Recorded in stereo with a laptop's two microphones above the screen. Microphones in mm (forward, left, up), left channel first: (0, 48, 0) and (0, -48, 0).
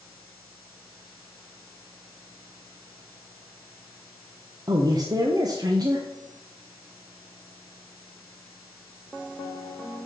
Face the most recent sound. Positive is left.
turn(degrees=-40)  # may be behind; listen again after turning